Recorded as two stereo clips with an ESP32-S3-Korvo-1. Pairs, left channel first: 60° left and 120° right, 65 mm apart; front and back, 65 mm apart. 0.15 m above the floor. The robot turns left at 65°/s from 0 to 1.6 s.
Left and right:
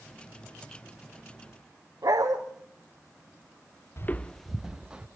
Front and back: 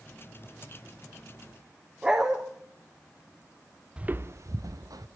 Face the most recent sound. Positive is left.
turn(degrees=165)